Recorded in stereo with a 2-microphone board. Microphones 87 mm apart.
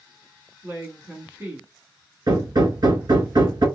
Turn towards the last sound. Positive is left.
turn(degrees=-55)  # may be behind; listen again after turning